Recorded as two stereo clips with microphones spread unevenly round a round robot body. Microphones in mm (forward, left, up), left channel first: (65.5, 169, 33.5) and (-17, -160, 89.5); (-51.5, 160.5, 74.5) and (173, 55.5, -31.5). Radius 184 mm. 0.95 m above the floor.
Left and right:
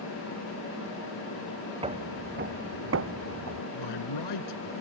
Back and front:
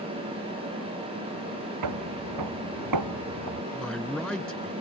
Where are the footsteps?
30° right; by 3.6 s 65° right.